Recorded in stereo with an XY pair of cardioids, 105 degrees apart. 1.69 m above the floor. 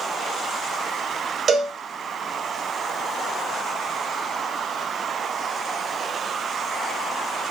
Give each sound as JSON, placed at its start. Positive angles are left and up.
{"t": 1.5, "sound": "a cowbell", "azimuth_deg": -50, "distance_m": 0.7}